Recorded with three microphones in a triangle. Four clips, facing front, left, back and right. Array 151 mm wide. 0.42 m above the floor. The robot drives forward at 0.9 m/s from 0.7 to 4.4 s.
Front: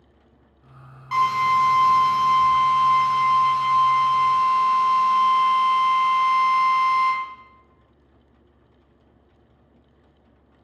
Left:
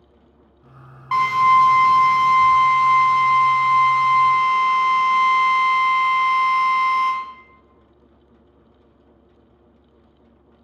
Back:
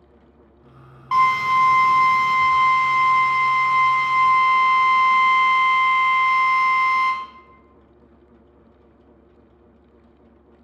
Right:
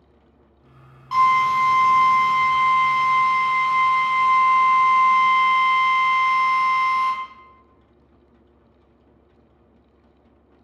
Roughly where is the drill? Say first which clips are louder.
Left 2 dB, back 2 dB; behind left.